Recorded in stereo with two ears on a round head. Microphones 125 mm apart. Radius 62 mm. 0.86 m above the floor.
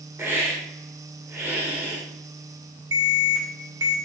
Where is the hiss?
15° right (ahead or behind), 1.6 m.